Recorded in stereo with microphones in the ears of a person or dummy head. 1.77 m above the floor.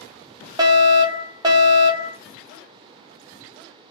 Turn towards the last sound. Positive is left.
turn(degrees=-20)  # may be behind; listen again after turning